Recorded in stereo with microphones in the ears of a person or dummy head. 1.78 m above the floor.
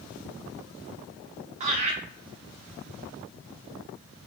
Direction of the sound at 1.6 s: 35° right (ahead or behind).